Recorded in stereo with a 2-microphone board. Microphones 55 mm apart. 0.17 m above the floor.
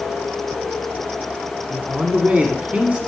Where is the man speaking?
25° right (ahead or behind), 1.2 m.